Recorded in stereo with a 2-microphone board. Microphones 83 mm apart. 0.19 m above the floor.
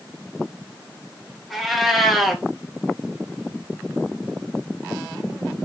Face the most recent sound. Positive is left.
turn(degrees=0)  # may be behind; listen again after turning